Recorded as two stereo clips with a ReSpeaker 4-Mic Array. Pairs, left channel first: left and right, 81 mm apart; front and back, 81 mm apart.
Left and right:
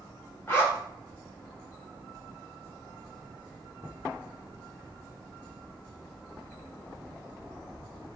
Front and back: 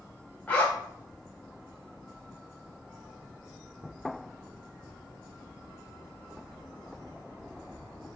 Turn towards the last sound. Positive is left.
turn(degrees=60)